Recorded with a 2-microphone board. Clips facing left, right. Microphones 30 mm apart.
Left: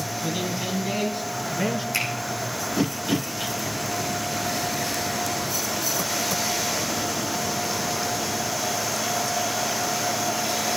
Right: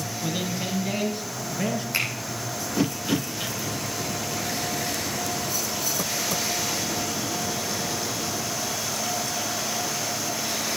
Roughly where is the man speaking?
Centre.